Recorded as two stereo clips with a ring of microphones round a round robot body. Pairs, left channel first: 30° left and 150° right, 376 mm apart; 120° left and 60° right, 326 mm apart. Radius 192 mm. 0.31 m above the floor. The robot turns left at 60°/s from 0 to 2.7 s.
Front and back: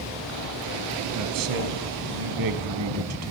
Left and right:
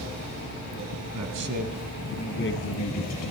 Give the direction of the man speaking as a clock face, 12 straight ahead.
3 o'clock.